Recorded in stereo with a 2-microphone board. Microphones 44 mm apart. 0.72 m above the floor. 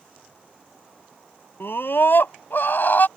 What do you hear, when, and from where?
1.6 s a scream: 70° left (ahead or behind); by 3.1 s 55° left (ahead or behind)